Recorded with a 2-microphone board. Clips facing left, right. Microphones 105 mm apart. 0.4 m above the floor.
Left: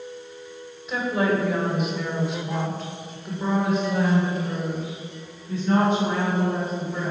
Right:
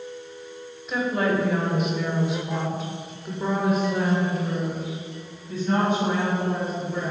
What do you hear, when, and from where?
0.9 s a woman speaking: centre (ahead or behind), 1.5 m; by 7.1 s 5° right (ahead or behind), 3 m